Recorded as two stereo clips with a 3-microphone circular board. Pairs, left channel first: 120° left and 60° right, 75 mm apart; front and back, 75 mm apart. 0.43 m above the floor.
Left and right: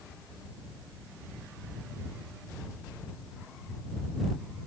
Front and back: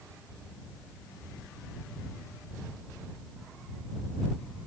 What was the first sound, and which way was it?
Only background noise.